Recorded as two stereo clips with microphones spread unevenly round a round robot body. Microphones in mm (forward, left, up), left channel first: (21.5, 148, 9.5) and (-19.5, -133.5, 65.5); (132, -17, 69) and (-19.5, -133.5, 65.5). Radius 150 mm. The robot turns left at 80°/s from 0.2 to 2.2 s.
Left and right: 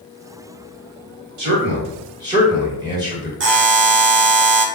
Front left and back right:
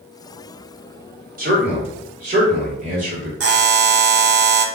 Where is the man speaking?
115° right, 1.7 m; by 3.3 s straight behind, 1.7 m.